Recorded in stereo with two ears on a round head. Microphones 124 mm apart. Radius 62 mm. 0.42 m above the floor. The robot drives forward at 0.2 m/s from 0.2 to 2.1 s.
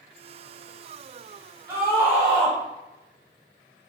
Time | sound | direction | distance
1.7 | a scream | 40° right (ahead or behind) | 1.1 m